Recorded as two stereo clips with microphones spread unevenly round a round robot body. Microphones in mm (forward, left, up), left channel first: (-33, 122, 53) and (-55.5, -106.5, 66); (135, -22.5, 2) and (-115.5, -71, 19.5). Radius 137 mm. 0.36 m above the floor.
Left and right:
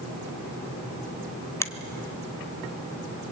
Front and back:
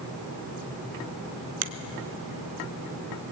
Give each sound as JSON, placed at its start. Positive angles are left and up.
{"t": 1.6, "sound": "a finger snap", "azimuth_deg": 160, "distance_m": 1.2}